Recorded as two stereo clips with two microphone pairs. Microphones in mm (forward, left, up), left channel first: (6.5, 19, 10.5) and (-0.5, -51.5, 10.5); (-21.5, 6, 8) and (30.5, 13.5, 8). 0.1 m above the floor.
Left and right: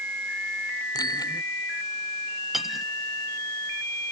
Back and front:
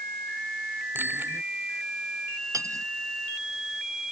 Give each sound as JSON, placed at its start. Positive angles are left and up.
{"t": 0.9, "sound": "a bicycle bell", "azimuth_deg": 60}
{"t": 2.5, "sound": "cutlery clinking", "azimuth_deg": -5}